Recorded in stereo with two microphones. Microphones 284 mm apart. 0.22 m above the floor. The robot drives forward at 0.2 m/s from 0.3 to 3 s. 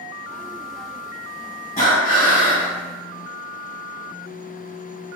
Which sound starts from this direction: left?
Breathing, at 1.8 s.